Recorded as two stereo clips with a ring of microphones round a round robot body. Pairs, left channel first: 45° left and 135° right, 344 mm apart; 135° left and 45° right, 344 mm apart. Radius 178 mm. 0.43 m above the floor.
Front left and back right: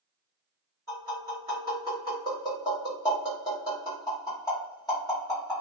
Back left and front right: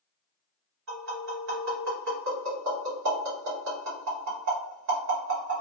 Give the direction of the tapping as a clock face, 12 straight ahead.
1 o'clock.